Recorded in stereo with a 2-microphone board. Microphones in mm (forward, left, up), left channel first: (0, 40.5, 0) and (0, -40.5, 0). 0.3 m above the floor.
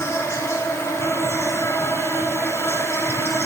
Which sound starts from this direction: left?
An insect, at 0.0 s.